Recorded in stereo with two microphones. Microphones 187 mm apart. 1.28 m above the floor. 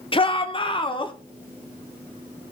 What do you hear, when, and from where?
0.1 s a shout: 30° left (ahead or behind), 1.0 m; by 1.1 s 25° left (ahead or behind), 1.6 m